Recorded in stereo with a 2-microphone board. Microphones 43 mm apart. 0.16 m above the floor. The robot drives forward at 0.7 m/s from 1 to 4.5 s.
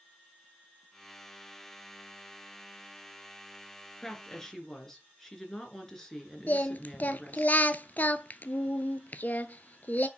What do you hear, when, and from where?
4.0 s a woman speaking: 10° left (ahead or behind), 3 m
6.5 s singing: 40° left (ahead or behind), 0.6 m